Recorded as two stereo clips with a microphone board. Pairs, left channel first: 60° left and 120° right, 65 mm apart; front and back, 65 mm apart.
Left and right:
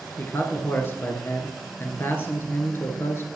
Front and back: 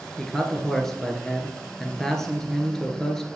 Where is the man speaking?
80° left, 1.3 m.